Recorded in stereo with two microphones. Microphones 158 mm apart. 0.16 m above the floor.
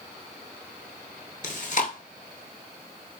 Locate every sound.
1.4 s chewing: 50° left (ahead or behind), 0.6 m